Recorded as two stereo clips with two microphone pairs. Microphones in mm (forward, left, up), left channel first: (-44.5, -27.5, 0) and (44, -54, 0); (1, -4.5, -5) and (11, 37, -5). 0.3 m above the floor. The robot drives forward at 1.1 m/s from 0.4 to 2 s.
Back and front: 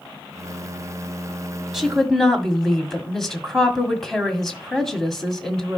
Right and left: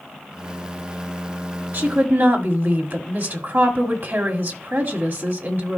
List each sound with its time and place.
1.7 s a woman speaking: 65° left, 1.7 m; by 5.8 s 80° left, 1.7 m